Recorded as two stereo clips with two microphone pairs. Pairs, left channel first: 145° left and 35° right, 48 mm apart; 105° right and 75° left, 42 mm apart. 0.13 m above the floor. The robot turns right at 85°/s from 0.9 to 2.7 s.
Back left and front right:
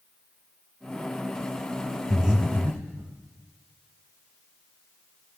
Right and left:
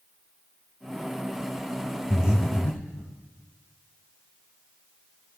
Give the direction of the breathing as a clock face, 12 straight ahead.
4 o'clock.